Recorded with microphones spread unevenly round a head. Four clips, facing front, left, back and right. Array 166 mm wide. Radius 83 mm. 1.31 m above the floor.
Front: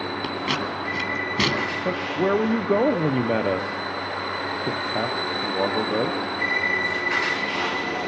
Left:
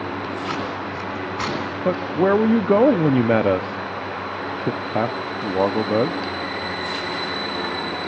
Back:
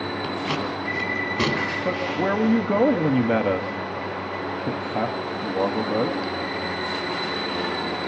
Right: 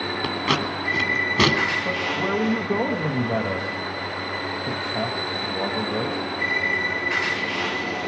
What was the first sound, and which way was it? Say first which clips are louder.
Scissors: right 2 dB, even; 60° right.